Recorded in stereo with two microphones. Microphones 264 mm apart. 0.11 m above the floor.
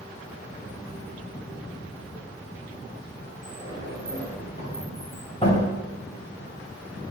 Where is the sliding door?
20° left (ahead or behind), 4.5 m.